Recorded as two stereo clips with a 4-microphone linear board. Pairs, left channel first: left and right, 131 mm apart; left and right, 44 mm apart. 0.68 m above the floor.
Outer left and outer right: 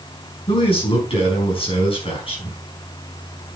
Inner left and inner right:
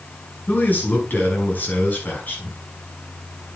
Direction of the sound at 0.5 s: 45° left (ahead or behind).